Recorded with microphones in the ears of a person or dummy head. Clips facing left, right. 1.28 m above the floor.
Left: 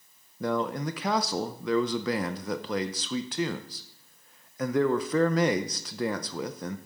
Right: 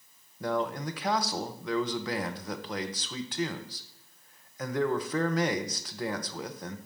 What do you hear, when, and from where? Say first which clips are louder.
0.4 s a man speaking: left 2 dB; 65° left (ahead or behind), 0.6 m